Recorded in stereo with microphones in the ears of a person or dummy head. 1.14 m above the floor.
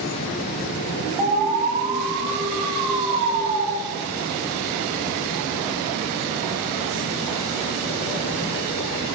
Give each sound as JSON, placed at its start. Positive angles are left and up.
{"t": 1.2, "sound": "an alarm", "side_deg": -35, "distance_m": 3.5}